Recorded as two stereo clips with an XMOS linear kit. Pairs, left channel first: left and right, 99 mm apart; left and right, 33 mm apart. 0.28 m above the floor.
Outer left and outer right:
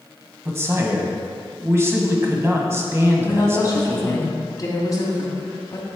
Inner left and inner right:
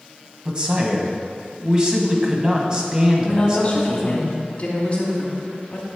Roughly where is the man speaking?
Right.